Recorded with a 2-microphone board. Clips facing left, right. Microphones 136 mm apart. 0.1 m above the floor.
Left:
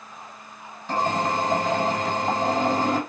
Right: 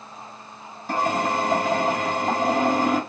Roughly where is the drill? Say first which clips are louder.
Right 1 dB; centre.